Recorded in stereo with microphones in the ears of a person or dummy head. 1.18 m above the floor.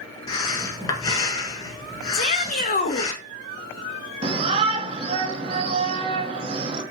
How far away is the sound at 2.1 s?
About 0.6 m.